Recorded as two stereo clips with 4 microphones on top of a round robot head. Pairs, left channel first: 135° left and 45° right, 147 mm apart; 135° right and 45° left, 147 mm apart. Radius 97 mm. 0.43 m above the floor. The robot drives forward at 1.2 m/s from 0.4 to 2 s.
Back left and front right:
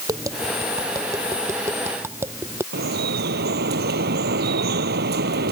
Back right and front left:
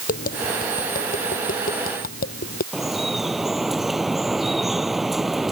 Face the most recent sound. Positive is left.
turn(degrees=-45)